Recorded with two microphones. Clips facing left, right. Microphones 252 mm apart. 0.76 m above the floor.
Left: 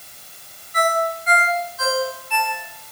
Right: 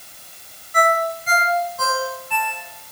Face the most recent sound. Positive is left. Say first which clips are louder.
# right 1 dB
turn(degrees=-55)  # may be behind; listen again after turning